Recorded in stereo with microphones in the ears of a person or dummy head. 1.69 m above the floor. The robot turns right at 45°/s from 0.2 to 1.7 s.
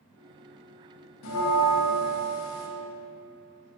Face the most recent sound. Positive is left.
turn(degrees=85)